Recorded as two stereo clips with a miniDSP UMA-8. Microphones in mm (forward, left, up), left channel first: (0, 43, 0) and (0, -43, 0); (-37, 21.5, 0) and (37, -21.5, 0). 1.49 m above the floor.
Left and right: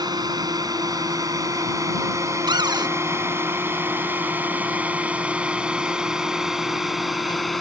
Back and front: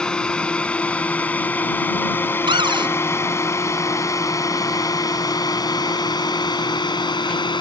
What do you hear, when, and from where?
0.0 s a drone: 130° right; by 7.6 s straight behind
2.5 s a cupboard door: 55° right